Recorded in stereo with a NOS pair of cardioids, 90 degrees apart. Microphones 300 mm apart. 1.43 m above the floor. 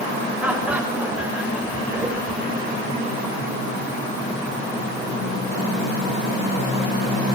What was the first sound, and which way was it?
Laughter, 5° right.